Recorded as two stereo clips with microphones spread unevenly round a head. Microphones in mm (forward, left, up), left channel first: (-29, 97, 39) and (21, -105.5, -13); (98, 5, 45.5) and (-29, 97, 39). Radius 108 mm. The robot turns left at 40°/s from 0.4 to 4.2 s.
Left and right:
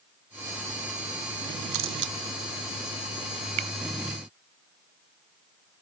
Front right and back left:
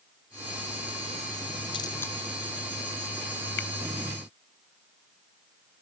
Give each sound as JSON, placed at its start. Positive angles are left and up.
{"t": 1.7, "sound": "a camera shutter", "azimuth_deg": -105}
{"t": 3.6, "sound": "a finger snap", "azimuth_deg": -75}